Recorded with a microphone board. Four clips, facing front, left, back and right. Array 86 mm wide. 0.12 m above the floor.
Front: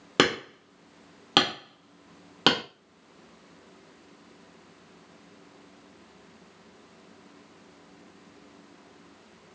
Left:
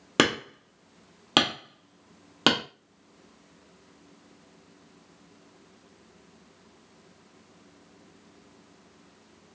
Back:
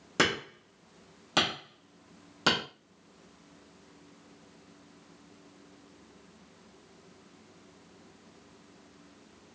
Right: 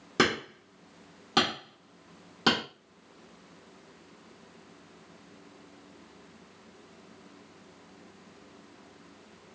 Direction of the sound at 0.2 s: 50° left.